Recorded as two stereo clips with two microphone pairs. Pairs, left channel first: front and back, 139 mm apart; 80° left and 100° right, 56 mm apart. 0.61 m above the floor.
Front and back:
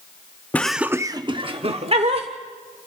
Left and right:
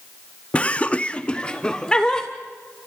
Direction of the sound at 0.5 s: 55° left.